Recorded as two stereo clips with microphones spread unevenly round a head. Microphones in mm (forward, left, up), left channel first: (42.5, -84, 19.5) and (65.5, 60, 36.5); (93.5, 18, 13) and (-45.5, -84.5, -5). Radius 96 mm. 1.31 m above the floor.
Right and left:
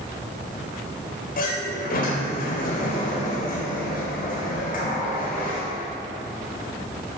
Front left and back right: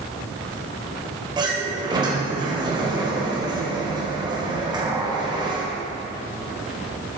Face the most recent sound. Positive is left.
turn(degrees=-75)